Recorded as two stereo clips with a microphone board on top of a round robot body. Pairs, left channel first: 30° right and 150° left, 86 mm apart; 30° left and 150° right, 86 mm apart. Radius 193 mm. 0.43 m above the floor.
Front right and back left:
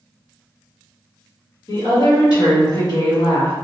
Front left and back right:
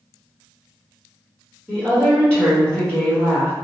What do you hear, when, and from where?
1.7 s a woman speaking: 50° right, 1.8 m